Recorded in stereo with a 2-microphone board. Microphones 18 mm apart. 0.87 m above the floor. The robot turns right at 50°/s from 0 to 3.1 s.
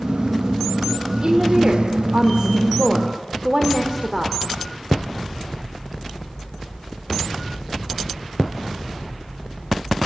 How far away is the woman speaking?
About 2.5 m.